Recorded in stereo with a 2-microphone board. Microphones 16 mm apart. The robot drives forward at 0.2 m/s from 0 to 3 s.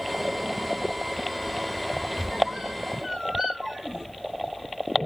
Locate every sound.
2.2 s a squeak: 40° right (ahead or behind), 3 m